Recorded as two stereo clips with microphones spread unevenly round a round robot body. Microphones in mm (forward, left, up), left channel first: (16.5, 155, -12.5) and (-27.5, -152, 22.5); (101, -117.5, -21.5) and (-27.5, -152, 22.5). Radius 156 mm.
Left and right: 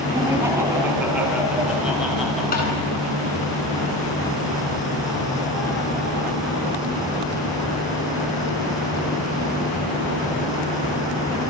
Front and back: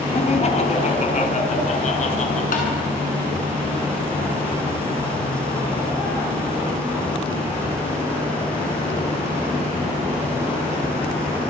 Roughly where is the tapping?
Ahead.